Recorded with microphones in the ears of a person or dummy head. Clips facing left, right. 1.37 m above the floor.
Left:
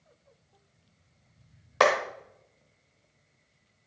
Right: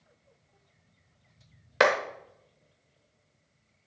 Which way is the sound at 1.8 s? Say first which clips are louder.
Even; 25° right (ahead or behind).